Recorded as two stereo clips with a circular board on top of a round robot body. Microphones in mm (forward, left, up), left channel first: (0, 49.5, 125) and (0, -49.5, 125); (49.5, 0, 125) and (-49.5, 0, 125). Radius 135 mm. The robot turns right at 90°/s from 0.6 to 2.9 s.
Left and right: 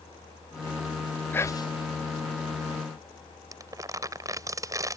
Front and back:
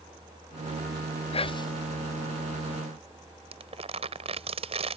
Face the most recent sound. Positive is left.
turn(degrees=-150)